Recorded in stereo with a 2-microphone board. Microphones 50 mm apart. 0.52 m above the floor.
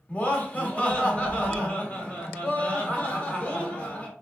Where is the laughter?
25° left (ahead or behind), 1.2 m.